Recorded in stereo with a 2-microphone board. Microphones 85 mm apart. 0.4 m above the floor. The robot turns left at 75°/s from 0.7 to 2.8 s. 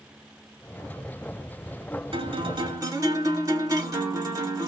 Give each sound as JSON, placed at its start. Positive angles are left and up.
{"t": 2.1, "sound": "a guitar", "azimuth_deg": -85, "distance_m": 0.8}